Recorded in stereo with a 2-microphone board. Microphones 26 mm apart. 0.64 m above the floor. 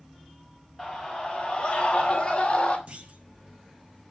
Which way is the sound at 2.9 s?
45° right (ahead or behind).